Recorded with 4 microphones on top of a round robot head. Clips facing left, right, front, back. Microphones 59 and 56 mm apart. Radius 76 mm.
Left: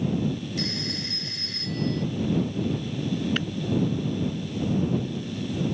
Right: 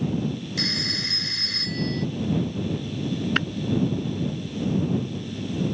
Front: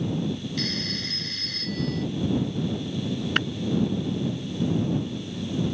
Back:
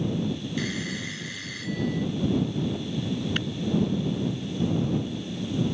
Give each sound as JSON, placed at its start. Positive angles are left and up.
{"t": 0.6, "sound": "a phone ringing", "azimuth_deg": -100}
{"t": 3.4, "sound": "tapping", "azimuth_deg": -45}